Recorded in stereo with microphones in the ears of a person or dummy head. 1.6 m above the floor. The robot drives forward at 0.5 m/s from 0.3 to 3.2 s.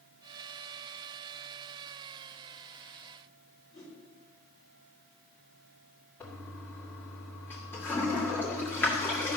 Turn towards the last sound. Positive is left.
turn(degrees=10)  # may be behind; listen again after turning